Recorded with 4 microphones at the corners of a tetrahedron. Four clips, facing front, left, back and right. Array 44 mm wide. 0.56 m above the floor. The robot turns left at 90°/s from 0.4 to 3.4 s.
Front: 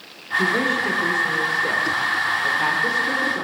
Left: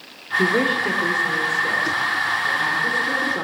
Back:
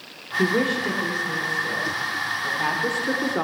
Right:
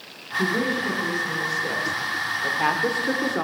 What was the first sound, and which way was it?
A woman speaking, 115° left.